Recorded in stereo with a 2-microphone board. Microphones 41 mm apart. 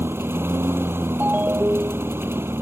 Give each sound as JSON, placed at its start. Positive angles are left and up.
{"t": 0.0, "sound": "a lawn mower", "side_deg": -70}
{"t": 1.2, "sound": "a ringtone", "side_deg": -50}